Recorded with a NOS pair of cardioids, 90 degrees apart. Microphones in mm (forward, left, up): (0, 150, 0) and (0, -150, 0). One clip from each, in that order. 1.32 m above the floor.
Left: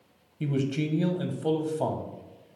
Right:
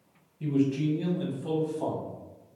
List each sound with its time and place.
0.4 s a man speaking: 50° left, 0.7 m